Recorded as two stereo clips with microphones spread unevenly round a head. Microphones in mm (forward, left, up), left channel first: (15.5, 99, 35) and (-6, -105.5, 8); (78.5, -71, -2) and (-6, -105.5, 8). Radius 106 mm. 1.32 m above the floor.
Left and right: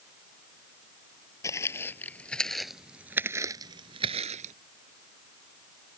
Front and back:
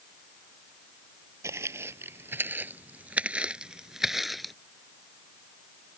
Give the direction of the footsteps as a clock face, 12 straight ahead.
7 o'clock.